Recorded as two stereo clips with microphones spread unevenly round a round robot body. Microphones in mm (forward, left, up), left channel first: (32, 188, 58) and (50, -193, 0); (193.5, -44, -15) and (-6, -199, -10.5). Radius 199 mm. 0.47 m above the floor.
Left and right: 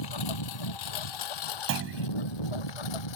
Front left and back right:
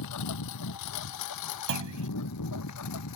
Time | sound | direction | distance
0.0 | a lawn mower | 65° left | ?
1.7 | a clunk | 150° right | ?